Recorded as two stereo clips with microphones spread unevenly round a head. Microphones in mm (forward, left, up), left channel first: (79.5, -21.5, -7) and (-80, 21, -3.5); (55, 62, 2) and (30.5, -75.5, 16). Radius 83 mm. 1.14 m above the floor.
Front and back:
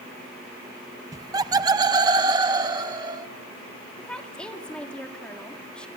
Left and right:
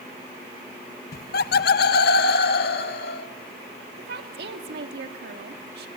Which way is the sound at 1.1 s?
95° left.